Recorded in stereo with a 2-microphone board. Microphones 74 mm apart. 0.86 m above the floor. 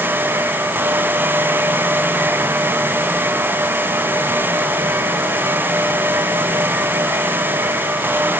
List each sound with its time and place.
Only background noise.